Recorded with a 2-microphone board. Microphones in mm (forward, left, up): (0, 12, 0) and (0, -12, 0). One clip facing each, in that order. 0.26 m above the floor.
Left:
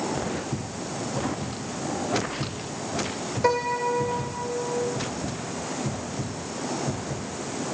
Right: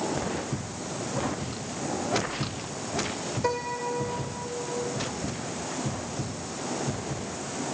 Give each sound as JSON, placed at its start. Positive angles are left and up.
{"t": 3.4, "sound": "a piano", "side_deg": 25}